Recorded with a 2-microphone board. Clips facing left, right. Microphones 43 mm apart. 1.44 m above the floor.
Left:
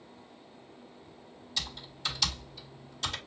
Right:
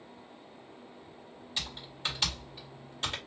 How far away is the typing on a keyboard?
About 1.9 m.